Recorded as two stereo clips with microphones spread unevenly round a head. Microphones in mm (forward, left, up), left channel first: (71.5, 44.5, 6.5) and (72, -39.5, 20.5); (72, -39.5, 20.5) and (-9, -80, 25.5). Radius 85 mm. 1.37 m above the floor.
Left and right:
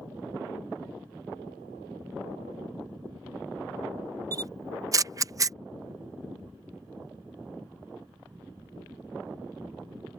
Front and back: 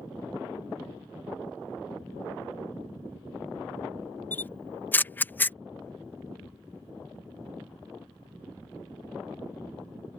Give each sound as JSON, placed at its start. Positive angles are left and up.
{"t": 4.3, "sound": "a camera shutter", "azimuth_deg": -45}